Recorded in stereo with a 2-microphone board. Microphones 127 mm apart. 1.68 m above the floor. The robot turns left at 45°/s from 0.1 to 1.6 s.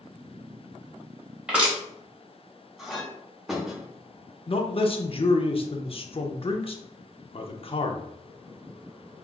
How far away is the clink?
About 1.0 m.